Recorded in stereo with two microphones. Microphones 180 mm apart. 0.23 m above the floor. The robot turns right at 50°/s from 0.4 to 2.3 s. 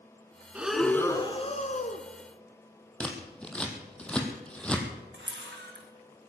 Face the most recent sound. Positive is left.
turn(degrees=-90)